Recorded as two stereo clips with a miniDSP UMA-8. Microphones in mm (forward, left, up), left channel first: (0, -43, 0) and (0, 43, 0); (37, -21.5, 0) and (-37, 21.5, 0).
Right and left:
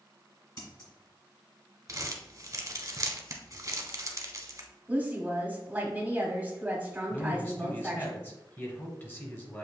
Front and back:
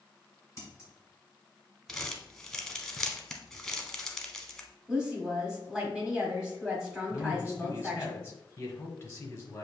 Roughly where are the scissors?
Right.